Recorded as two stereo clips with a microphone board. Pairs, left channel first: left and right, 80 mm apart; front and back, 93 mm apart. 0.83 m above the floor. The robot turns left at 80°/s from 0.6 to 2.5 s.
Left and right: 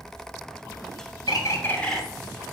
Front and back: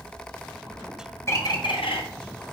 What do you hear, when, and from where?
1.3 s a bird: 60° left, 2.0 m; by 2.0 s straight ahead, 2.0 m